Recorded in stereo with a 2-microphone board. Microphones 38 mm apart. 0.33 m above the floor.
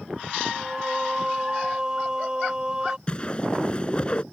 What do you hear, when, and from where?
0.5 s singing: 20° right (ahead or behind)
3.1 s a whoosh: 30° left (ahead or behind)